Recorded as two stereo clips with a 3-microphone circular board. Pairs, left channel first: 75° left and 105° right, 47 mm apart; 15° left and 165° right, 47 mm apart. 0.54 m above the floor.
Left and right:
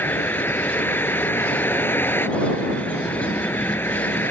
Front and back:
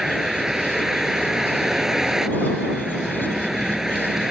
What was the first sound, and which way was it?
A vehicle, 115° left.